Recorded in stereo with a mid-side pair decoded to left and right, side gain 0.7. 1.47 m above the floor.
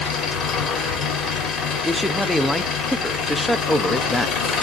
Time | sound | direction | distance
0.0 | an engine running | 40° left | 3.5 m
1.8 | a man speaking | 5° left | 0.7 m